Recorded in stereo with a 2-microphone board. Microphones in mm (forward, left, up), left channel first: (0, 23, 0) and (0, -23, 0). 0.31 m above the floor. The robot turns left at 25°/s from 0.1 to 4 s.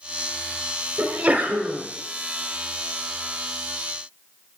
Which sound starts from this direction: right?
A sneeze, at 1.0 s.